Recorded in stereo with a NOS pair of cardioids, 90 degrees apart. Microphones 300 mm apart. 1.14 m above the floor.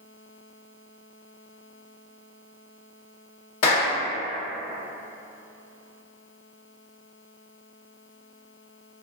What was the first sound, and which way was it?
A clap, 55° left.